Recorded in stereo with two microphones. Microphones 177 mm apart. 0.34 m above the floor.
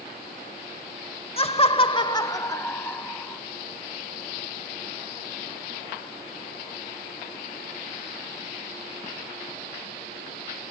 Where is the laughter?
35° left (ahead or behind), 1.0 m; by 3.4 s 10° left (ahead or behind), 2.5 m.